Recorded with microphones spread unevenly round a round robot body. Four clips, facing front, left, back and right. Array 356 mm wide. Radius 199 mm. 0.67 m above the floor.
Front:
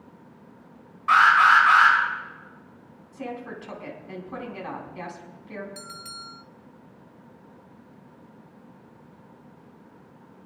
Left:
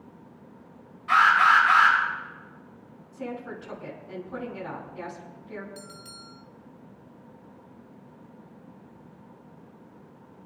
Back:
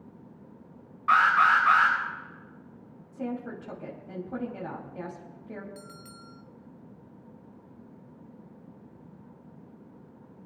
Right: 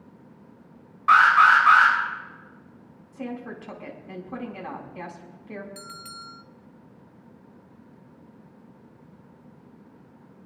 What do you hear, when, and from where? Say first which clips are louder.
1.1 s an alarm: right 3 dB, front 4 dB; 115° right, 10 m
3.1 s a woman speaking: right 1 dB, back 1 dB; 155° right, 4.5 m
5.8 s a bell: right 3 dB, front 4 dB; 100° right, 0.6 m